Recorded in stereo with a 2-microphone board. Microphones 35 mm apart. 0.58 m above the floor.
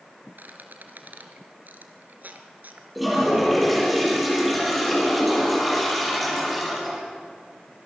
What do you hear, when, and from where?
0.4 s a squeak: 60° right (ahead or behind), 2.5 m
3.0 s a toilet flushing: centre (ahead or behind), 9.5 m